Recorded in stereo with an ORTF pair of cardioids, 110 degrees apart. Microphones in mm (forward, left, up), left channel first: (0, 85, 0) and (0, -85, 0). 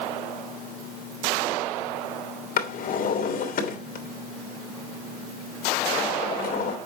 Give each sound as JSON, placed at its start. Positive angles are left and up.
{"t": 2.6, "sound": "a drawer", "azimuth_deg": 60, "distance_m": 3.0}